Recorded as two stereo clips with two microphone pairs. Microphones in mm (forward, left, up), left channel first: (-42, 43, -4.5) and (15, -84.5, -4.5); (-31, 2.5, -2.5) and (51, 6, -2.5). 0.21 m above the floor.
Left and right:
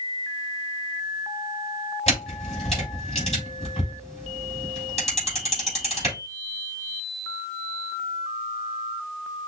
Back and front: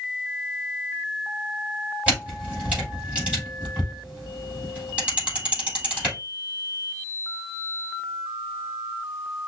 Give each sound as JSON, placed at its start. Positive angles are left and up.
{"t": 2.1, "sound": "a camera shutter", "azimuth_deg": 75, "distance_m": 4.0}